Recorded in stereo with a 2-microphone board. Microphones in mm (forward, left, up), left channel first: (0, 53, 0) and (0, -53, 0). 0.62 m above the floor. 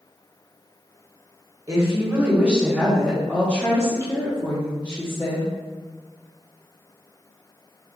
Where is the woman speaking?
30° right (ahead or behind), 1.3 m; by 5.5 s 50° left (ahead or behind), 1.8 m.